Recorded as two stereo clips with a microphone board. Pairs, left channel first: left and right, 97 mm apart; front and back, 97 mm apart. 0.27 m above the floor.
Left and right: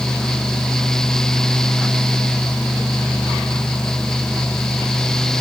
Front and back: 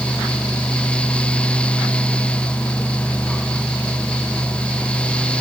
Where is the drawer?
I don't hear a drawer.